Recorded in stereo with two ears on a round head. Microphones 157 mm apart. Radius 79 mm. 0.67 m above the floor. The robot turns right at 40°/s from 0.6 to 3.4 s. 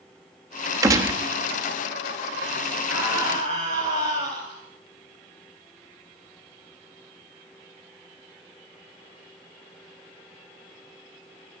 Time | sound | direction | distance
0.8 | a gunshot | 20° right (ahead or behind) | 1.0 m
2.9 | a scream | 5° right (ahead or behind) | 3 m